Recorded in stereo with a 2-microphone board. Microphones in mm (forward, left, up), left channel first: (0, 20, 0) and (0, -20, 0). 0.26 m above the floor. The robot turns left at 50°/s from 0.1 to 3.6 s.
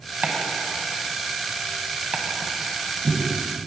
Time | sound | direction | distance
0.2 | chopping | 35° right (ahead or behind) | 1.6 m
2.1 | chopping | 35° right (ahead or behind) | 1.4 m